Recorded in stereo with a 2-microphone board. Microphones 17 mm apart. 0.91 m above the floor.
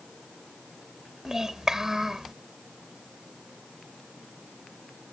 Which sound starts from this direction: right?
A child speaking, at 1.2 s.